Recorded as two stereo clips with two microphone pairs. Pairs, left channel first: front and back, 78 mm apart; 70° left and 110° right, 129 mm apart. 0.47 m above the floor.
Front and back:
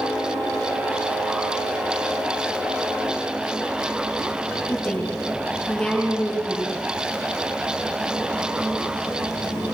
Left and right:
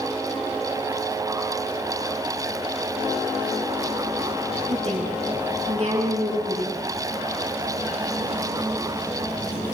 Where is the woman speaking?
85° right, 5.5 m.